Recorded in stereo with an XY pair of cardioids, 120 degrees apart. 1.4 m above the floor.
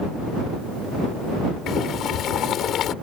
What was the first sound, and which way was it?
Boiling, 60° left.